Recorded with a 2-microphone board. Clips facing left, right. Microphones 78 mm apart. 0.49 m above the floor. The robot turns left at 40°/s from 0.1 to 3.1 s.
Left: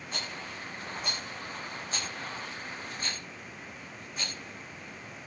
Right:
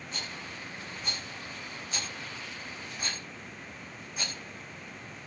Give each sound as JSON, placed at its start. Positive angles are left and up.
{"t": 0.1, "sound": "a rattle", "side_deg": 75, "distance_m": 8.0}